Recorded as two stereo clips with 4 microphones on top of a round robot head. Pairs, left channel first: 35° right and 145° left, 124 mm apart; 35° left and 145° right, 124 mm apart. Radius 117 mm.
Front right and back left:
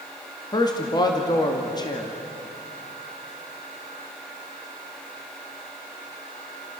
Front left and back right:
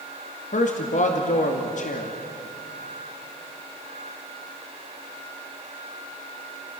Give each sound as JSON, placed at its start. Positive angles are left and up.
{"t": 0.5, "sound": "a man speaking", "azimuth_deg": 20, "distance_m": 2.0}